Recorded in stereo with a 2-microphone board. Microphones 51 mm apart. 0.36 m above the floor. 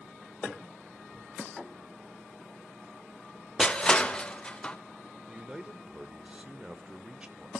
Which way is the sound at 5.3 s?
20° right (ahead or behind).